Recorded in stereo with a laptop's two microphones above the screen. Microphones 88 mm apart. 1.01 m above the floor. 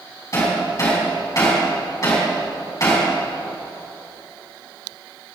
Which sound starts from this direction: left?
Hammering, at 0.3 s.